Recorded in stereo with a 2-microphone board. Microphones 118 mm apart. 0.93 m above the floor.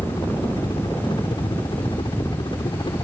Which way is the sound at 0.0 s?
40° left (ahead or behind).